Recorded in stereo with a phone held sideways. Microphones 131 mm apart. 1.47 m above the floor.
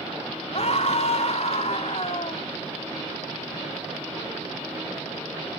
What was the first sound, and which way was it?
A scream, 55° left (ahead or behind).